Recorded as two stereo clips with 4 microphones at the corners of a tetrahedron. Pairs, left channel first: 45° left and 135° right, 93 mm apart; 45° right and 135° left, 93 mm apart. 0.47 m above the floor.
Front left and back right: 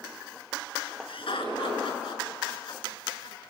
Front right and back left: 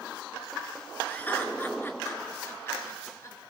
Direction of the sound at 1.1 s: 25° left.